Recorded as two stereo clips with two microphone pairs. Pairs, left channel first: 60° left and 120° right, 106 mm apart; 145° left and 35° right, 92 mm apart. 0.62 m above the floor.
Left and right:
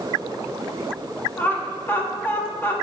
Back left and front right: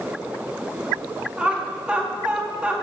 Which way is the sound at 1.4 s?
20° left.